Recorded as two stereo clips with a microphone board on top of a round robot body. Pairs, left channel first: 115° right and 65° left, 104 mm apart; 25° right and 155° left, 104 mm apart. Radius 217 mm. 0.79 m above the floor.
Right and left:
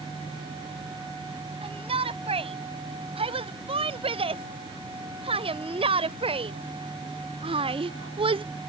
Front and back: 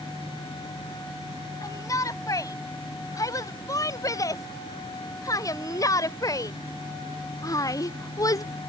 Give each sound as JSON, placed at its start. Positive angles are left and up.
{"t": 1.6, "sound": "a shout", "azimuth_deg": 40}